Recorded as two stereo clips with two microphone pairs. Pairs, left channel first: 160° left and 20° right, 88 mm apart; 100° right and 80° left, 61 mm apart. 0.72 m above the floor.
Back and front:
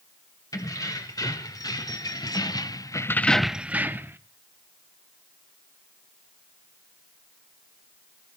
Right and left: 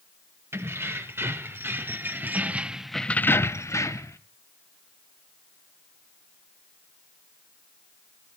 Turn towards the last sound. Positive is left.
turn(degrees=-75)